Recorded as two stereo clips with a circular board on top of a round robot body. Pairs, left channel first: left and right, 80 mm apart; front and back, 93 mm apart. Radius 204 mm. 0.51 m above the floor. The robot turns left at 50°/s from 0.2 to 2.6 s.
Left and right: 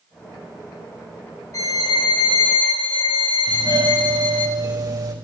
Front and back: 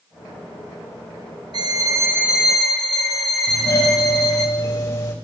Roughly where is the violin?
Behind left.